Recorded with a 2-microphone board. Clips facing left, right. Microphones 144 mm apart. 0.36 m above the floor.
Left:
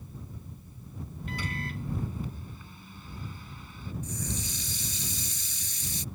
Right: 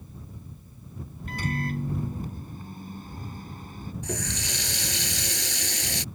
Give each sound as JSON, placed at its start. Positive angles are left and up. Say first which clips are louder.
{"t": 1.3, "sound": "a microwave", "louder": "right 7 dB", "side_deg": -45}
{"t": 4.0, "sound": "a running tap", "louder": "right 5 dB", "side_deg": -80}